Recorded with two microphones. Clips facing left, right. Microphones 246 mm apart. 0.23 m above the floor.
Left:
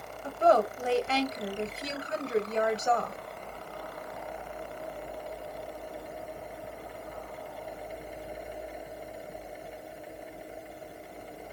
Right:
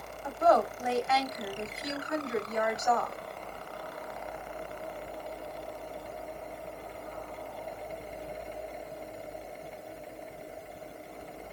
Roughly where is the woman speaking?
Left.